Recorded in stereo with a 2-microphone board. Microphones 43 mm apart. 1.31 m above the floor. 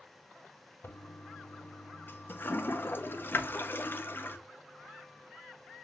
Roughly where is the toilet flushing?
Left.